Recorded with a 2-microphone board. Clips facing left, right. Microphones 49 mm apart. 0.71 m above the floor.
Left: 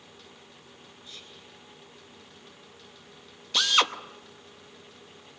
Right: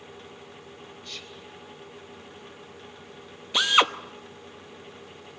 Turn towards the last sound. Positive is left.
turn(degrees=-20)  # may be behind; listen again after turning